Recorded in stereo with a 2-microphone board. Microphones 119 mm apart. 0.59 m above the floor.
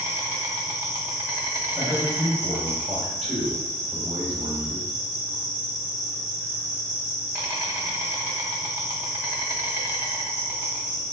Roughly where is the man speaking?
Right.